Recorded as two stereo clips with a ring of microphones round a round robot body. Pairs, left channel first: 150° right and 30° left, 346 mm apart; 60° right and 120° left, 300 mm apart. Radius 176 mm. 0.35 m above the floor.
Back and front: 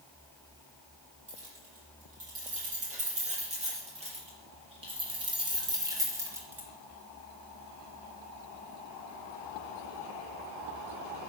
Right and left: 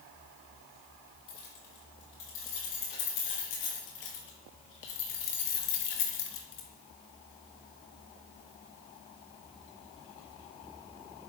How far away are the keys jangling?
About 8.5 m.